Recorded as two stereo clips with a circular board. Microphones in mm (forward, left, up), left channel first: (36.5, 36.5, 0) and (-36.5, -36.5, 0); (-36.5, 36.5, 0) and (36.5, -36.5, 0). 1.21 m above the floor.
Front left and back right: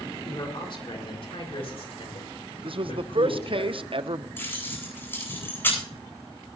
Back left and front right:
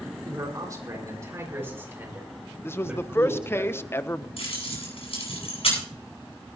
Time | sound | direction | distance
0.2 | a man speaking | 5° left | 4 m
2.6 | a man speaking | 160° right | 0.7 m
4.4 | keys jangling | 115° left | 9 m